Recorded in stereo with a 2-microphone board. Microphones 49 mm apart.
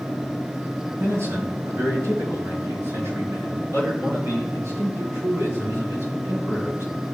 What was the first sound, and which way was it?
A man speaking, 70° right (ahead or behind).